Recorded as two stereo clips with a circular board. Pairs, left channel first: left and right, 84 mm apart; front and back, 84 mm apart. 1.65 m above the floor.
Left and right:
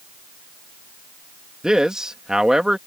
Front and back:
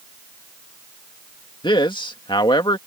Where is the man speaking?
10° right.